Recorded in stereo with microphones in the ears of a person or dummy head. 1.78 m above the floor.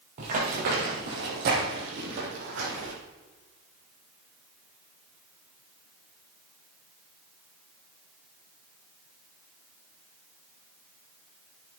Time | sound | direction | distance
0.2 | running footsteps | 30° right (ahead or behind) | 2 m